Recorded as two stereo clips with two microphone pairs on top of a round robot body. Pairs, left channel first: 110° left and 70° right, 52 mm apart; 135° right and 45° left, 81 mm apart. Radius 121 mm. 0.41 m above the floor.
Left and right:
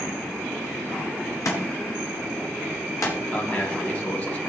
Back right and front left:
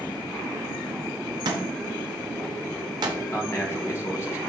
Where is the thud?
85° left, 2.5 m.